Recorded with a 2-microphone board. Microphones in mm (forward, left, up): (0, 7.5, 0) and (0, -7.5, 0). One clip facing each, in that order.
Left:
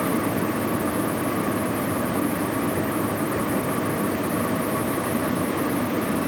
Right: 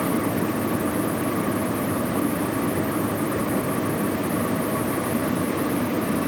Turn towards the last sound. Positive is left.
No sound to turn to.